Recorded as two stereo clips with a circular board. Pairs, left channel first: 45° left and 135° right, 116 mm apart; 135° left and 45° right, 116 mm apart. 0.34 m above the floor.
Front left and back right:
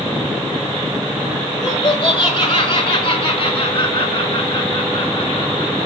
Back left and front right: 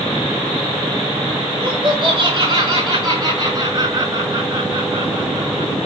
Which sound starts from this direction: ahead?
Laughter, at 1.5 s.